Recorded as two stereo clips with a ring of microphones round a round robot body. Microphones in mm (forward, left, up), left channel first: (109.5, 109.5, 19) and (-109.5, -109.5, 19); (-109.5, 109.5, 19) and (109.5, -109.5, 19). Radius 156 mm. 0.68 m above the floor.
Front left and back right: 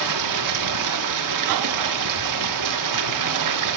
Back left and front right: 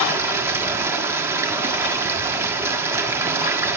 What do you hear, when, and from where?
0.0 s running water: 125° right, 1.3 m